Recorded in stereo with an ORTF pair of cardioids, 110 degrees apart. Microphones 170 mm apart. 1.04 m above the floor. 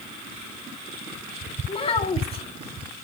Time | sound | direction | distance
1.7 | a child speaking | 35° left | 1.6 m